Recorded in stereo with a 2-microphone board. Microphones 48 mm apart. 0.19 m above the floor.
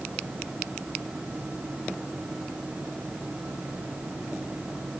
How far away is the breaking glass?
No breaking glass in this recording.